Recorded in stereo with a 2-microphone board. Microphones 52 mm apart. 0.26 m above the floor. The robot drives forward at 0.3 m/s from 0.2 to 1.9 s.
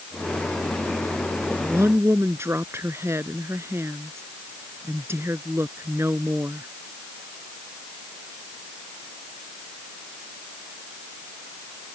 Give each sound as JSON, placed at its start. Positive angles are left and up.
{"t": 1.5, "sound": "a woman speaking", "side_deg": -55}